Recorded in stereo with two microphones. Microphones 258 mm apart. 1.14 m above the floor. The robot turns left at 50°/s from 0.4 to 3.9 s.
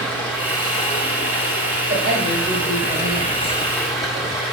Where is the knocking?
No knocking in this recording.